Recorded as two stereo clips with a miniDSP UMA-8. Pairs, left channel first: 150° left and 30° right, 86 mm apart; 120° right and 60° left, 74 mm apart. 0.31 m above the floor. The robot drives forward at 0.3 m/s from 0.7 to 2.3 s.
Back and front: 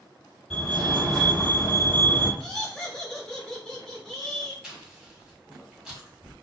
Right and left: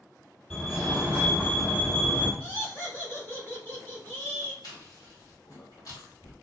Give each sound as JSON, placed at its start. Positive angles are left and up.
{"t": 0.5, "sound": "a fire alarm", "azimuth_deg": -155, "distance_m": 2.0}
{"t": 2.4, "sound": "laughter", "azimuth_deg": -135, "distance_m": 1.0}
{"t": 4.6, "sound": "chewing", "azimuth_deg": -110, "distance_m": 1.6}